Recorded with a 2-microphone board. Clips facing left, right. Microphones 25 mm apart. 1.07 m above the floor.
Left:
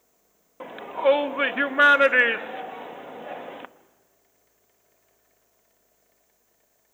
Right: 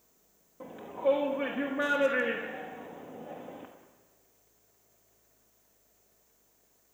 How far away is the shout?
About 1.1 m.